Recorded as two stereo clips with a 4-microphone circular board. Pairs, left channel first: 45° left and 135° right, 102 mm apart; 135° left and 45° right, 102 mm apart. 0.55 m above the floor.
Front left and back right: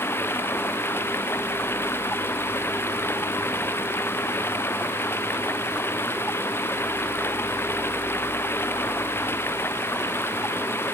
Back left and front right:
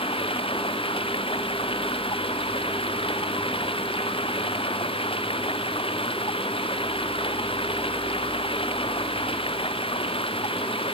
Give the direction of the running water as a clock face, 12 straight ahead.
8 o'clock.